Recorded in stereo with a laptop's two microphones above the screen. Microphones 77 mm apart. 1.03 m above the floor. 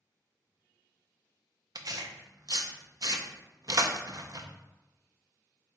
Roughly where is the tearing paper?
Right.